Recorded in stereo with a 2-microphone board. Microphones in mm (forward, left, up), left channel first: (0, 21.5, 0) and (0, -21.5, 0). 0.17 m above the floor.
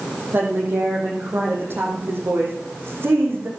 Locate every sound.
0.3 s a woman speaking: 55° right (ahead or behind), 6 m; by 3.5 s 65° right (ahead or behind), 8.5 m